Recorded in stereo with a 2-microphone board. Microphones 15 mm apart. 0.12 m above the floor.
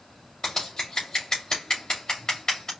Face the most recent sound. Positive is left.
turn(degrees=45)  # may be behind; listen again after turning